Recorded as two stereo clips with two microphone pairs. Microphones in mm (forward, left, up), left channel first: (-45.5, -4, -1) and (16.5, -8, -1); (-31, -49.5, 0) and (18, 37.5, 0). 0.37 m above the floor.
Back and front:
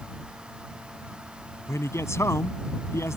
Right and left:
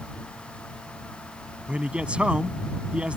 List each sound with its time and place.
1.7 s a man speaking: 140° left